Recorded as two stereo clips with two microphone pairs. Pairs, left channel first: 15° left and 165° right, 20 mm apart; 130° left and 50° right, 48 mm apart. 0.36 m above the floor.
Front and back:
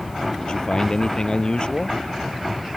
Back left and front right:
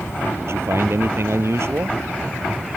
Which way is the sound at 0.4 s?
30° right.